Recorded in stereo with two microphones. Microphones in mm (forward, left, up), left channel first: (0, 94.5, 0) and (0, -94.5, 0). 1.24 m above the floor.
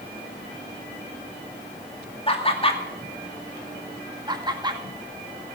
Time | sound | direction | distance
2.3 | laughter | 30° left (ahead or behind) | 2 m
4.3 | laughter | 25° right (ahead or behind) | 1.9 m